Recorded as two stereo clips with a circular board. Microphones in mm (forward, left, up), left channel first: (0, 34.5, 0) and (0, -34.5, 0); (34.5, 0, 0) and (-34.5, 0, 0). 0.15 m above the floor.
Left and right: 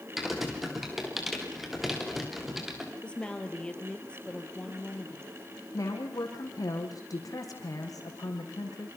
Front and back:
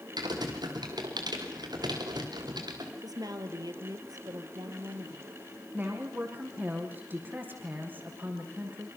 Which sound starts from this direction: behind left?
A woman speaking, at 5.7 s.